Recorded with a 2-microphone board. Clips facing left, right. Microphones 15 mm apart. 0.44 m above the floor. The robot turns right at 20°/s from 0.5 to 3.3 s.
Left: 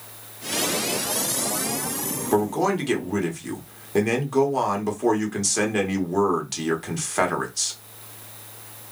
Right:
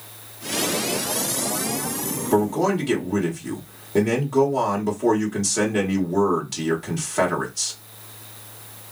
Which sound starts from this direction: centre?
A man speaking, at 2.3 s.